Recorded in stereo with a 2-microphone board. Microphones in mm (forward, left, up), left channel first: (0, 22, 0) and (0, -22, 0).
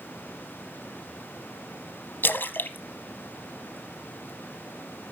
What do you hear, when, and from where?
2.2 s a splash: 55° left (ahead or behind), 0.8 m